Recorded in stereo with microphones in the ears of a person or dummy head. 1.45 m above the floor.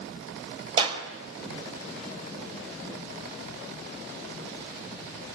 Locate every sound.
0.8 s a clap: 35° right (ahead or behind), 4.5 m